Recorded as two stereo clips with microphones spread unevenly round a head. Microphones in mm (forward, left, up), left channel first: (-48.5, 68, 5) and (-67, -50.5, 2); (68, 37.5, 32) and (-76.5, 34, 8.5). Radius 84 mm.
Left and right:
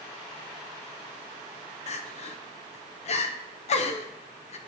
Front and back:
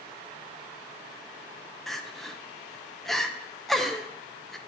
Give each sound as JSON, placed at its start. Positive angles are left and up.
{"t": 1.9, "sound": "crying", "azimuth_deg": 95, "distance_m": 0.9}